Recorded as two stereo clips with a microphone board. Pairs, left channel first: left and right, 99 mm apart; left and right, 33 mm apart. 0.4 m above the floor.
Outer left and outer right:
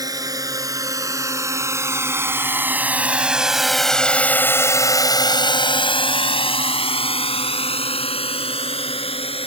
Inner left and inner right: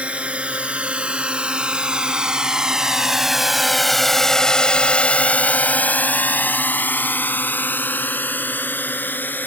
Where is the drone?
40° right (ahead or behind); by 9.5 s 70° left (ahead or behind).